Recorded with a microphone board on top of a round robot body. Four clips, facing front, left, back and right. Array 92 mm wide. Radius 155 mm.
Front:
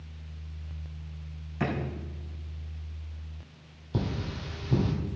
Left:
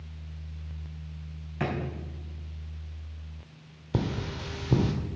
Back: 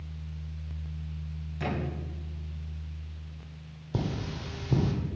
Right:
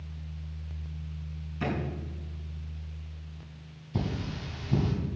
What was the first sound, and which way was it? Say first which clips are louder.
A drawer: left 1 dB, front 2 dB; 60° left.